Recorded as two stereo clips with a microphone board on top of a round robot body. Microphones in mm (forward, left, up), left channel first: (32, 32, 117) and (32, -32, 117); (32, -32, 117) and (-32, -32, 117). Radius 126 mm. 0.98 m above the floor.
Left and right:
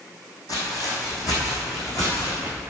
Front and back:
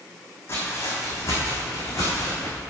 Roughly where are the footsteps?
Ahead left.